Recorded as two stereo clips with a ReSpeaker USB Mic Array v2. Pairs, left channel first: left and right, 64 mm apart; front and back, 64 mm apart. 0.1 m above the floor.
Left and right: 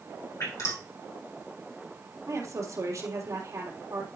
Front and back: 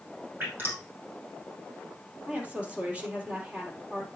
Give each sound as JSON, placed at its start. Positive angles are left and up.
{"t": 0.4, "sound": "dripping", "azimuth_deg": 125, "distance_m": 4.5}
{"t": 2.3, "sound": "a woman speaking", "azimuth_deg": -110, "distance_m": 3.5}